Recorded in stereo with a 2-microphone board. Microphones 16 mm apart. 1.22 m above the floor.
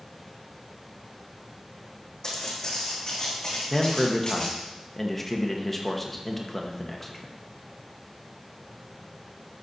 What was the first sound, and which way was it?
Footsteps, 30° left (ahead or behind).